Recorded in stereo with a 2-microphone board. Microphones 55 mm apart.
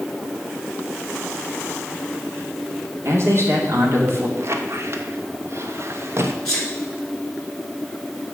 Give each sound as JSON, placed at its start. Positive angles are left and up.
{"t": 3.0, "sound": "a man speaking", "side_deg": -55, "distance_m": 2.5}
{"t": 4.4, "sound": "a squeak", "side_deg": -55, "distance_m": 1.0}
{"t": 6.5, "sound": "a sneeze", "side_deg": 10, "distance_m": 2.0}